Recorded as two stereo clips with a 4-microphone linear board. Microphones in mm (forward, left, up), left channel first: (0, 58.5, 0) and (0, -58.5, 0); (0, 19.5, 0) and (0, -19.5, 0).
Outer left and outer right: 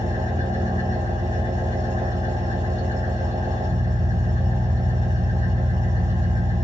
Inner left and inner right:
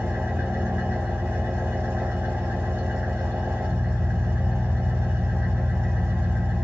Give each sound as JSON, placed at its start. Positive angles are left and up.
{"t": 0.0, "sound": "an engine running", "side_deg": -75, "distance_m": 1.3}